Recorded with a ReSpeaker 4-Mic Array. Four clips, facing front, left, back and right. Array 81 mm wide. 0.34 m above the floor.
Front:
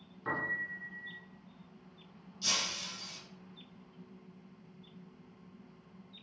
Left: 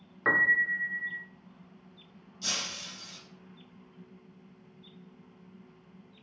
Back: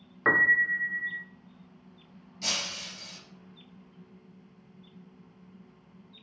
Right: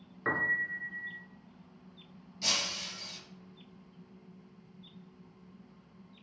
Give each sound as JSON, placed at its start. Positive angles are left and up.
{"t": 0.2, "sound": "a piano", "azimuth_deg": 165, "distance_m": 0.8}
{"t": 2.4, "sound": "breaking glass", "azimuth_deg": -145, "distance_m": 3.5}